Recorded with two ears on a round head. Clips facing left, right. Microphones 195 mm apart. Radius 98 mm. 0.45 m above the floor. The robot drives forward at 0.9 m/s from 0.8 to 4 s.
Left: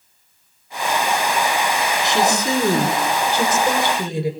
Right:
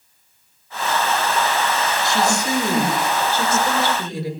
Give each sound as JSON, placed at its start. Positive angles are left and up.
{"t": 2.0, "sound": "a woman speaking", "side_deg": 20, "distance_m": 5.5}